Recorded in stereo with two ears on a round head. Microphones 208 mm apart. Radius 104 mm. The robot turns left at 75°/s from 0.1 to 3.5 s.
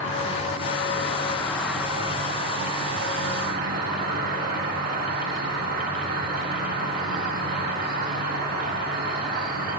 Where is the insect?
120° left, 1.6 m; by 9.8 s 135° right, 1.6 m.